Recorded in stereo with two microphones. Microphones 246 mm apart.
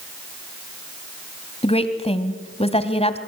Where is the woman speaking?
25° left (ahead or behind), 2 m.